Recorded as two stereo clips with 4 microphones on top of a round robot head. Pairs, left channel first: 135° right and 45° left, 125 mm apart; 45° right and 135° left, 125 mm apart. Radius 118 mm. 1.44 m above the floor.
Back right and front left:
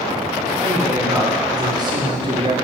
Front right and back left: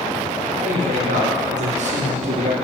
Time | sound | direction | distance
0.6 | a man speaking | 110° left | 5.5 m